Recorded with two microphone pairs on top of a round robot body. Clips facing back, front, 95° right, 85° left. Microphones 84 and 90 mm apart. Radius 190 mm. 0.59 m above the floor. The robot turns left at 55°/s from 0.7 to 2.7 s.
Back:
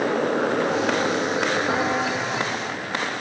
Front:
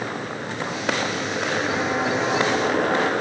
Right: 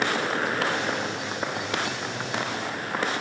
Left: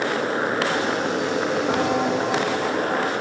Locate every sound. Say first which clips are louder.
0.0 s a motorcycle: back 8 dB, left 3 dB; 150° left; by 3.2 s 40° left
1.7 s footsteps: even, left 9 dB; 120° left; by 3.1 s 45° left